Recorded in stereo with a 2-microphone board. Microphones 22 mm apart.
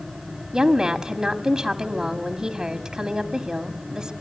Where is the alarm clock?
No alarm clock in this recording.